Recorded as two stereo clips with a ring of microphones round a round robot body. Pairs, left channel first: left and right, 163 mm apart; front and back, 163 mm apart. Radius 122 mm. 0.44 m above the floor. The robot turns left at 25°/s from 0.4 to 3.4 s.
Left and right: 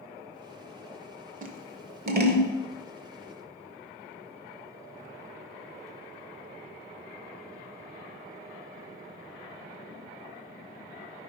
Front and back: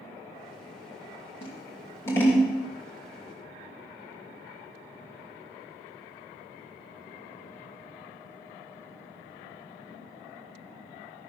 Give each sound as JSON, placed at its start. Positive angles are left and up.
{"t": 1.4, "sound": "scissors", "azimuth_deg": -60, "distance_m": 1.1}